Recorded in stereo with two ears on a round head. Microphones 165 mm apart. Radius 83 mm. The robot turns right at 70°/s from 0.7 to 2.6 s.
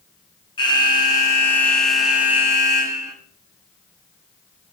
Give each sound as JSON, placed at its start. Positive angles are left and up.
{"t": 0.6, "sound": "an alarm", "side_deg": 25, "distance_m": 0.9}